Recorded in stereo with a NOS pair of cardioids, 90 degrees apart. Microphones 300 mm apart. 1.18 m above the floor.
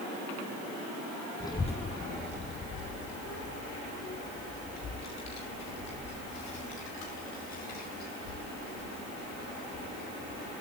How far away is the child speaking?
About 1.0 m.